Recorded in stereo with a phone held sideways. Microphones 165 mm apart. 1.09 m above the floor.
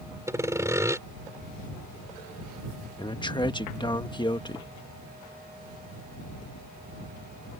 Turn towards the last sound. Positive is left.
turn(degrees=30)  # may be behind; listen again after turning